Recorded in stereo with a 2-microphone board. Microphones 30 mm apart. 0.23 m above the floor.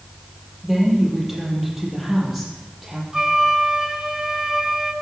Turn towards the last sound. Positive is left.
turn(degrees=-25)  # may be behind; listen again after turning